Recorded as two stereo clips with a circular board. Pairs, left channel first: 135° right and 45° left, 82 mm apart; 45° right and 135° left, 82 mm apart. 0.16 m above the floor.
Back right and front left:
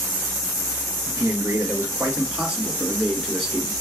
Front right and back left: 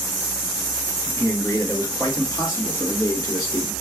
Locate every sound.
1.1 s a man speaking: straight ahead, 2.5 m; by 3.7 s 55° right, 1.9 m